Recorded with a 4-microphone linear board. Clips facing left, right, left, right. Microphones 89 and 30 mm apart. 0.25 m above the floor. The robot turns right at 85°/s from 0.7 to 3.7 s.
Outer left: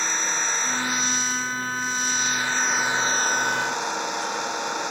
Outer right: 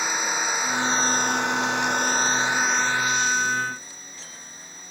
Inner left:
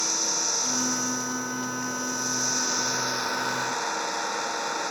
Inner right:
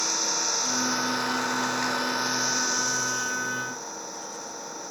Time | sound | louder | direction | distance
0.0 | an engine running | outer right 1 dB, even | 170° right | ?